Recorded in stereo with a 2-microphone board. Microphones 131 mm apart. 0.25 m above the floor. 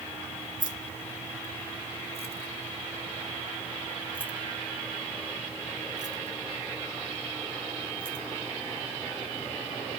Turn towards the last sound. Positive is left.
turn(degrees=-45)  # may be behind; listen again after turning